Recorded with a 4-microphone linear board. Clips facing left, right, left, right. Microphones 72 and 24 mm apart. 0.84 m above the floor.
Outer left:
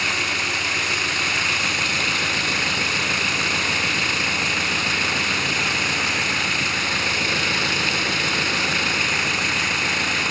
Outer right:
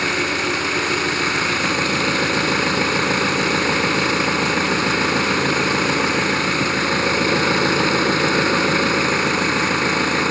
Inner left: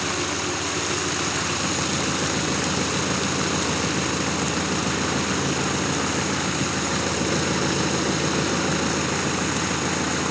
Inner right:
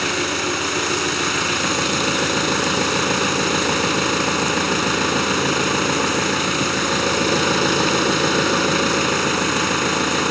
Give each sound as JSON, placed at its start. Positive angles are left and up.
{"t": 0.0, "sound": "an engine running", "side_deg": -40}